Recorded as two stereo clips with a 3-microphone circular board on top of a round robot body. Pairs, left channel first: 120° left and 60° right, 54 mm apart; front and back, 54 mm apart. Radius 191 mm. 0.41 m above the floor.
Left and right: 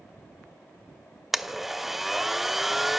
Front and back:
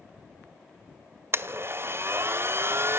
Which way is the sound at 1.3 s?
145° right.